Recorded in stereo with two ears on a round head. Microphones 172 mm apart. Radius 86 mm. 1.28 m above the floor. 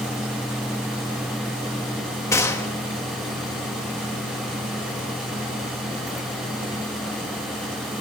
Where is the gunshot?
15° left (ahead or behind), 1.6 m.